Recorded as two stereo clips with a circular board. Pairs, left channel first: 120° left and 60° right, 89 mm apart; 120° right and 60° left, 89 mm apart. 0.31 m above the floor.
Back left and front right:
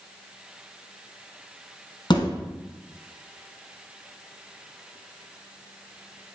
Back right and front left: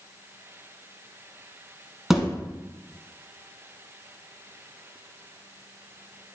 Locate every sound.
2.1 s a thud: 145° left, 1.5 m